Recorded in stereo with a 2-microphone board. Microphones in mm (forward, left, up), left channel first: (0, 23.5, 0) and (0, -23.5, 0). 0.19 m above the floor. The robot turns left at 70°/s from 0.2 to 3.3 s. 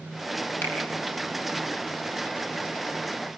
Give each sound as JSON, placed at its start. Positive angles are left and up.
{"t": 0.6, "sound": "a finger snap", "side_deg": 50, "distance_m": 4.5}